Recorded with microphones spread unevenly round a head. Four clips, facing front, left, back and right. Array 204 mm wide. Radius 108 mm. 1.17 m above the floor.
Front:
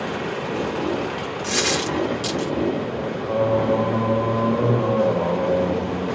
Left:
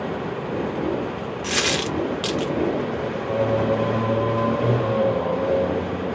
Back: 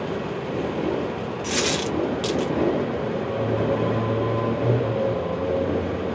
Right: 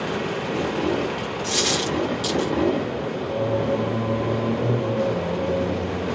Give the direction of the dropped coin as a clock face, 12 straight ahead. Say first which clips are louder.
Left 1 dB, front 1 dB; 10 o'clock.